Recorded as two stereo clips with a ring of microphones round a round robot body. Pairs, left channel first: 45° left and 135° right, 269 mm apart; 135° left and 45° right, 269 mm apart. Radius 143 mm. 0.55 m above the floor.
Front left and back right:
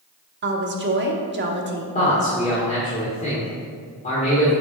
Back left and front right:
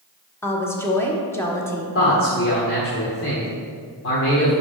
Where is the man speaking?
105° left, 1.6 m.